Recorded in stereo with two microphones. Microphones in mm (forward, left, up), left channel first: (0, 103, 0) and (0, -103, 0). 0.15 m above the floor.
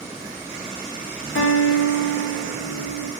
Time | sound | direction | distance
1.4 | a guitar | 75° left (ahead or behind) | 3.5 m